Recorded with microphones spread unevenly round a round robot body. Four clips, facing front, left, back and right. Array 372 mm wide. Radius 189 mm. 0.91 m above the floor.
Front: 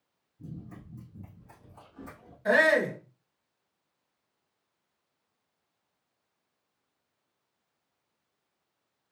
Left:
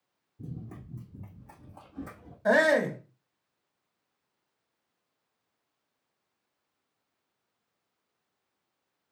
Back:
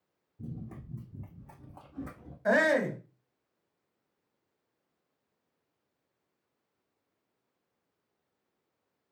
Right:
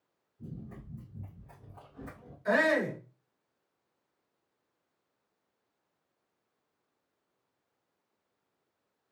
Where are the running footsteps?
125° left, 2.5 m; by 2.4 s 145° left, 3.5 m.